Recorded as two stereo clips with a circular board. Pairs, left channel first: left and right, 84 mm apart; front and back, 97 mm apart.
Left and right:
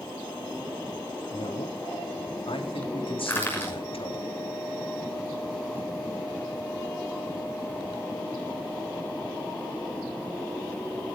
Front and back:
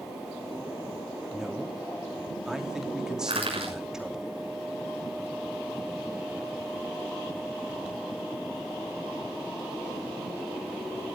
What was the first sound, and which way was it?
A man speaking, 95° left.